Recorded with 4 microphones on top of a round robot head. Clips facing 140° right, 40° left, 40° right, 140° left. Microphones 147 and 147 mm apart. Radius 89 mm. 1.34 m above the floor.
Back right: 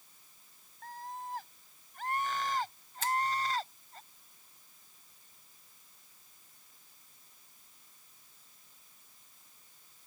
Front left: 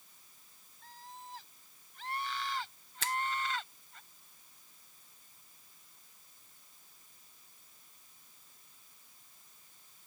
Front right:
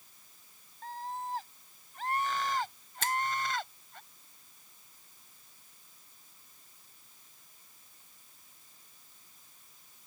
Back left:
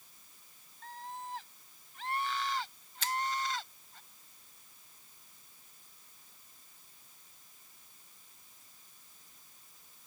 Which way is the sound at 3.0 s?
10° left.